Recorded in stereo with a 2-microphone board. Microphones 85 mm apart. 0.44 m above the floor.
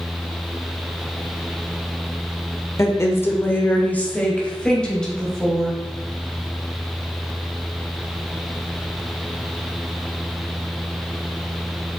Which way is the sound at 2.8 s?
35° left (ahead or behind).